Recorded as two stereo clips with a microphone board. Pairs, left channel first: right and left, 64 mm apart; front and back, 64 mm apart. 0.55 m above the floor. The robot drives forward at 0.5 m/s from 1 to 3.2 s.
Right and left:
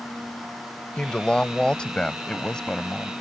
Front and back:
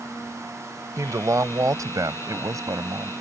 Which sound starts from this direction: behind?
A woman speaking, at 1.0 s.